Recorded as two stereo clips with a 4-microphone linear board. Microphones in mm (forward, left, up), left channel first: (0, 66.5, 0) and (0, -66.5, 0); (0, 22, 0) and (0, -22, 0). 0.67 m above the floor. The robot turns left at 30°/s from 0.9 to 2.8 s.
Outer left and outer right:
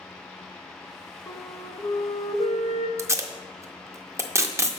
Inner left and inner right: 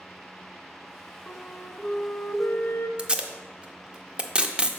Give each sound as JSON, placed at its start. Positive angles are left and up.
{"t": 1.3, "sound": "a flute", "azimuth_deg": 145, "distance_m": 0.5}
{"t": 3.0, "sound": "tape being pulled", "side_deg": -20, "distance_m": 0.5}